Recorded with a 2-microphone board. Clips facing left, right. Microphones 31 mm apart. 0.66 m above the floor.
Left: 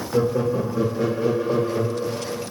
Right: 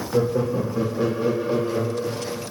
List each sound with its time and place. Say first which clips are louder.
0.1 s laughter: left 1 dB; 15° left (ahead or behind), 0.6 m; by 2.4 s 40° right (ahead or behind), 1.3 m